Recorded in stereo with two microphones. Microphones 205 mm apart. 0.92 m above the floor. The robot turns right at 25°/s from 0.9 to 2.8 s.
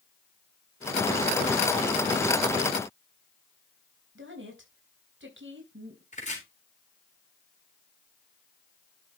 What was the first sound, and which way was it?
A woman speaking, 70° right (ahead or behind).